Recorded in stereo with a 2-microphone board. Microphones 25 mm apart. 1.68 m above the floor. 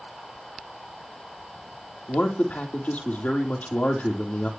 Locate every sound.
2.1 s a man speaking: 75° left (ahead or behind), 3.5 m